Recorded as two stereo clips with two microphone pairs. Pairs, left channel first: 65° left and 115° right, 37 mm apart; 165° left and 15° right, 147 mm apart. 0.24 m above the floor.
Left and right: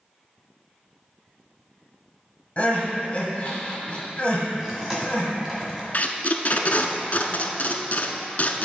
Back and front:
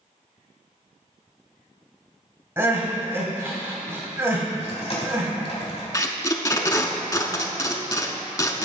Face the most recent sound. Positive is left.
turn(degrees=105)